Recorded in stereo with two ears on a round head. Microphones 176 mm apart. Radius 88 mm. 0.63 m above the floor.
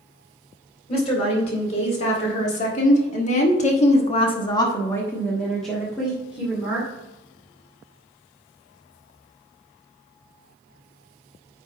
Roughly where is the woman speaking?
Left.